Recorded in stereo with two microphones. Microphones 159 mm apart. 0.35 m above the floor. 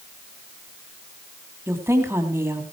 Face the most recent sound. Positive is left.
turn(degrees=-15)  # may be behind; listen again after turning